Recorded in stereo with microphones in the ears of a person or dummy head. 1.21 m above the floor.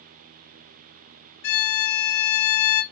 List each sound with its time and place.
1.4 s a violin: 60° left (ahead or behind), 0.8 m